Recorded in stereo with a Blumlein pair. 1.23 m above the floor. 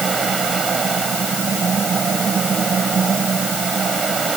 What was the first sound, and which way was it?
A fan, 20° right.